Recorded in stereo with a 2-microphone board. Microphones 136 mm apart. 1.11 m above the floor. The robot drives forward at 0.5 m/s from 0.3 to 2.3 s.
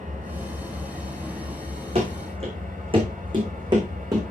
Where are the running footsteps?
50° right (ahead or behind), 4.5 m; by 4.2 s 25° right (ahead or behind), 4 m.